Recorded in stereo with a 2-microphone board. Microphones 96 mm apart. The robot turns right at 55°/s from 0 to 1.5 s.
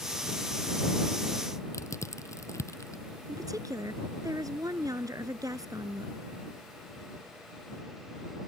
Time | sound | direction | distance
1.7 | crushing | 30° left (ahead or behind) | ?
3.3 | a woman speaking | 40° right (ahead or behind) | ?